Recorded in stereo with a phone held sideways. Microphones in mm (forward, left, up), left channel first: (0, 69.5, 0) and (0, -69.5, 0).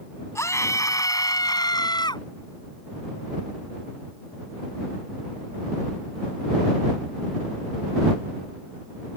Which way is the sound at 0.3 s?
20° left (ahead or behind).